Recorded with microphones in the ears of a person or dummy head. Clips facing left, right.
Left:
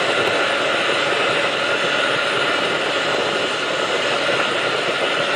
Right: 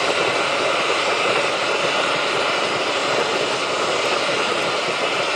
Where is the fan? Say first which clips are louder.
Left 1 dB; 15° left (ahead or behind), 1.2 m.